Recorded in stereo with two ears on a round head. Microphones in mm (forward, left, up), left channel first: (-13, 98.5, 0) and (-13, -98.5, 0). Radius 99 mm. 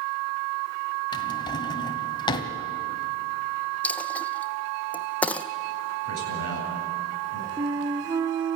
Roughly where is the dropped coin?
Centre.